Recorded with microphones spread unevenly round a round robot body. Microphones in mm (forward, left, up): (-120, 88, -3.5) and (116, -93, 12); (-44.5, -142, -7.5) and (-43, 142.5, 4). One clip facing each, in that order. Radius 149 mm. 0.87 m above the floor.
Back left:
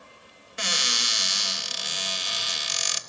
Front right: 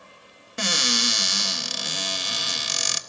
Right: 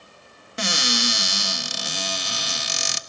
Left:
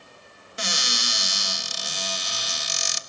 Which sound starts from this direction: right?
A cupboard door, at 0.6 s.